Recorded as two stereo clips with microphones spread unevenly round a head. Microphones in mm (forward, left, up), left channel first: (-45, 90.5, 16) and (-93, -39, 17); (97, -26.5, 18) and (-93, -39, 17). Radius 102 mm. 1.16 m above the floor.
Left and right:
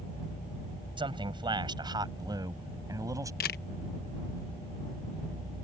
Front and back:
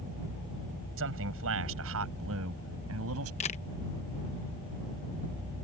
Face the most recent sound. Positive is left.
turn(degrees=65)